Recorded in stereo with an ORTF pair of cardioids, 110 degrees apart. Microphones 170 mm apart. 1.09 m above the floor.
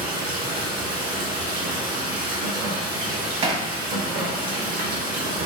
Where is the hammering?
40° right, 0.9 m.